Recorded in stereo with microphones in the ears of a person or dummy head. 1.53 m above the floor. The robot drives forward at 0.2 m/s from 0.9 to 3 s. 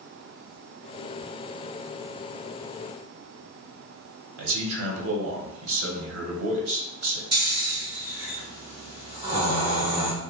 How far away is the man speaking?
About 1.0 m.